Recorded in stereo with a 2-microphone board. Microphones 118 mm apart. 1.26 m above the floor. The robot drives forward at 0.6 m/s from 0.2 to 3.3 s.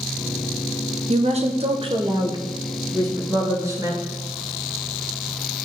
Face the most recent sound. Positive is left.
turn(degrees=-25)  # may be behind; listen again after turning